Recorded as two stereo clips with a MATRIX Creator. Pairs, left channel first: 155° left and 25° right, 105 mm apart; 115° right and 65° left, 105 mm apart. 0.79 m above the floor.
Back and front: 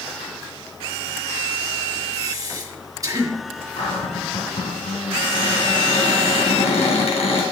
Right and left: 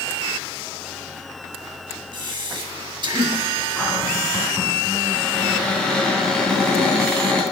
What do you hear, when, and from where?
2.1 s breathing: 30° left, 1.7 m
3.8 s a cupboard door: 165° left, 2.5 m